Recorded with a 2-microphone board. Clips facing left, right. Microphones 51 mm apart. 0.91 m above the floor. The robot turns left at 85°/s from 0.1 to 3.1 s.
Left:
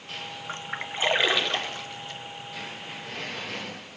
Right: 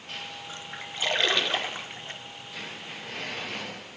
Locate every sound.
0.5 s a splash: 45° left (ahead or behind), 0.6 m; by 2.2 s 40° right (ahead or behind), 0.6 m